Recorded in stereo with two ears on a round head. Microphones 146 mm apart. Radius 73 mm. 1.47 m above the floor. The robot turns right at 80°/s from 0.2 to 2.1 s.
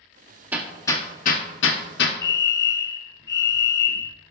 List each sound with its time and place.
0.5 s hammering: 10° right (ahead or behind), 1.2 m; by 2.2 s 65° left (ahead or behind), 1.2 m
2.2 s a fire alarm: 20° left (ahead or behind), 0.7 m